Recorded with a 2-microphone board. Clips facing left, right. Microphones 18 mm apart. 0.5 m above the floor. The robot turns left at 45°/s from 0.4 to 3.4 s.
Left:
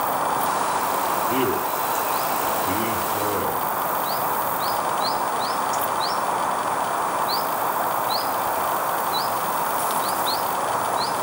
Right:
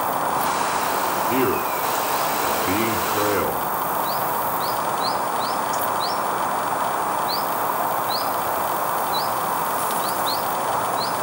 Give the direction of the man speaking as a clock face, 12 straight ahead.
1 o'clock.